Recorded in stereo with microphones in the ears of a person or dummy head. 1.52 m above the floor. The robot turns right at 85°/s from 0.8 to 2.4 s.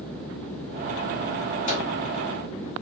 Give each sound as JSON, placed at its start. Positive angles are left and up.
{"t": 1.7, "sound": "a microwave", "side_deg": 50, "distance_m": 1.5}